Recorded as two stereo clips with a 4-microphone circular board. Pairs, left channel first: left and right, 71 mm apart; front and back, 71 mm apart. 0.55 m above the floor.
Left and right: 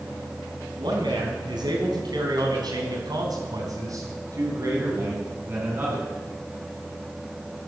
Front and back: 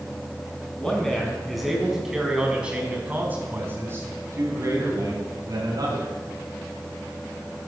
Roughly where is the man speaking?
Right.